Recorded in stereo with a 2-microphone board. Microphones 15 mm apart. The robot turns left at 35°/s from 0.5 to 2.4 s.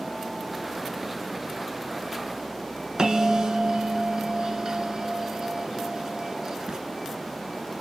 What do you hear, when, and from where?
3.0 s a bell: 50° right (ahead or behind), 1.0 m